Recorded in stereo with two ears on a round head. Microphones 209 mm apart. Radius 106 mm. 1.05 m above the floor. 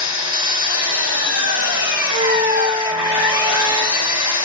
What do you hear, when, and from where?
0.0 s an engine running: 70° left (ahead or behind), 3.5 m
2.1 s a flute: 20° right (ahead or behind), 0.7 m